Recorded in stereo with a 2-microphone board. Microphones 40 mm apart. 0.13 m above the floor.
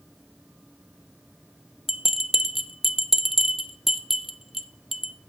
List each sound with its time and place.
1.9 s a bell: 5° right (ahead or behind), 0.6 m